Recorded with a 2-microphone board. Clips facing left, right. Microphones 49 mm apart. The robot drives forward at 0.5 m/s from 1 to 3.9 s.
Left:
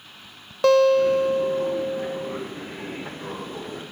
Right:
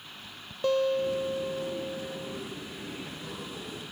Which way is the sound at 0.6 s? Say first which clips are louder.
Left 10 dB; 85° left.